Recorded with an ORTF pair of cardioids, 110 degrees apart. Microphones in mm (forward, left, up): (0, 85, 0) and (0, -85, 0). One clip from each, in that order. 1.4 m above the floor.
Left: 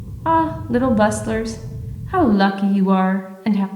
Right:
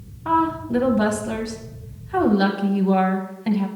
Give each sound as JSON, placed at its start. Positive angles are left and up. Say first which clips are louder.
{"t": 0.2, "sound": "a woman speaking", "louder": "left 3 dB", "azimuth_deg": 30, "distance_m": 0.6}